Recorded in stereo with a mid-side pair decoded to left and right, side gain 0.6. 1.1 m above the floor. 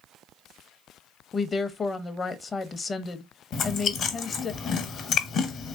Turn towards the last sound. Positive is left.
turn(degrees=55)